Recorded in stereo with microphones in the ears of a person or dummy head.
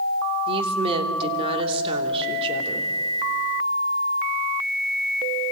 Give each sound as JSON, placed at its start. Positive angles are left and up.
{"t": 0.5, "sound": "a woman speaking", "side_deg": -30, "distance_m": 3.0}